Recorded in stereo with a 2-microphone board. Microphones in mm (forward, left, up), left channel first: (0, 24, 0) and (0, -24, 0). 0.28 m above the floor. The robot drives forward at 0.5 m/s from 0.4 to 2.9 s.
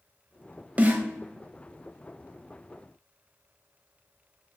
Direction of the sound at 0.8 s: 25° right (ahead or behind).